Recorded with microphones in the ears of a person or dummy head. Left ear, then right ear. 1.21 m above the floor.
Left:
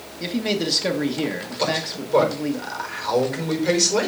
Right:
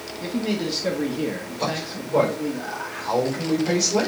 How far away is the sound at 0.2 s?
About 1.1 m.